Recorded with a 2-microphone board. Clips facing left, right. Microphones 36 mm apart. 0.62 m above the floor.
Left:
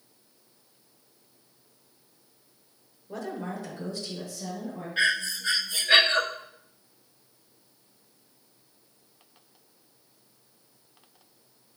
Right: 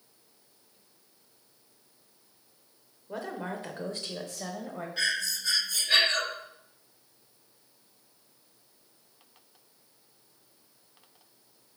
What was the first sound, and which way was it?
A woman speaking, 20° right (ahead or behind).